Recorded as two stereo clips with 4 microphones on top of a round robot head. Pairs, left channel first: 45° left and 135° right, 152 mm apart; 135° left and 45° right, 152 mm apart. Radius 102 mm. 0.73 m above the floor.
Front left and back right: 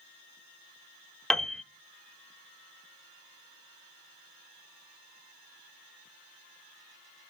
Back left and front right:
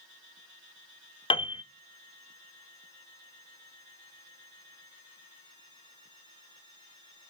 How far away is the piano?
About 0.6 m.